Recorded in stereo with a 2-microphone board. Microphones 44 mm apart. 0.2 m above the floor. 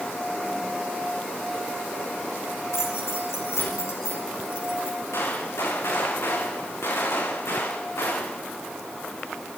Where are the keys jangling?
80° left, 9 m.